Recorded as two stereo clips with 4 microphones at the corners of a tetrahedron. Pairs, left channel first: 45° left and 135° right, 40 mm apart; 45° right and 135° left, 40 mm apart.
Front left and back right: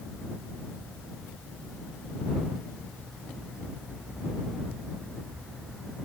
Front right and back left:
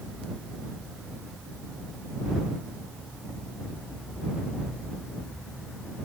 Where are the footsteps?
I don't hear footsteps.